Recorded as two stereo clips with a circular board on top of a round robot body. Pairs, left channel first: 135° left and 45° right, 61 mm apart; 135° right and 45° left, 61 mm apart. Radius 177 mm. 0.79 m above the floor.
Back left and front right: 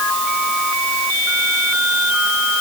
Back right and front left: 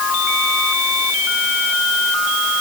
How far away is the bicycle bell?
No bicycle bell in this recording.